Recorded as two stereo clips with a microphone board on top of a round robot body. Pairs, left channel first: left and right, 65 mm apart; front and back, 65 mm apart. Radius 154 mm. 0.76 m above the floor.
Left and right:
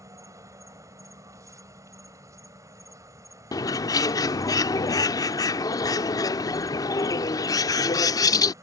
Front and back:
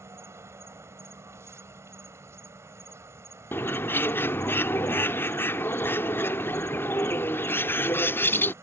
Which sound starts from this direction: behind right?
An insect, at 0.0 s.